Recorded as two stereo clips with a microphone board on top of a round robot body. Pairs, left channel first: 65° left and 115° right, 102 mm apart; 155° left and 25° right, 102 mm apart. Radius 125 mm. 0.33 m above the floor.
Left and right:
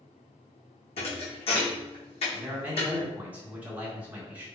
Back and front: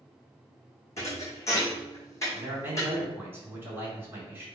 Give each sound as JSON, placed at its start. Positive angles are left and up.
{"t": 1.0, "sound": "a thud", "azimuth_deg": 95, "distance_m": 1.7}
{"t": 2.3, "sound": "a man speaking", "azimuth_deg": -60, "distance_m": 1.4}